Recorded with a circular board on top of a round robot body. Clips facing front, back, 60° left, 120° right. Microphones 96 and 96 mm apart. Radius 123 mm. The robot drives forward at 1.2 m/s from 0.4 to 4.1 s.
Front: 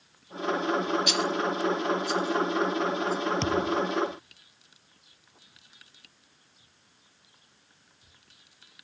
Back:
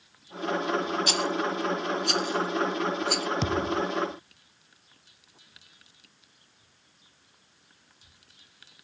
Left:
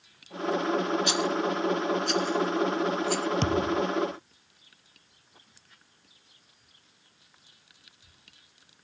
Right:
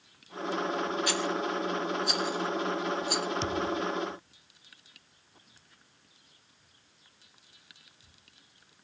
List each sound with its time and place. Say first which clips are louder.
1.1 s a rattle: even, left 4 dB; 125° left; by 3.3 s 165° left
3.4 s a thud: even, left 5 dB; 95° left; by 3.9 s 110° left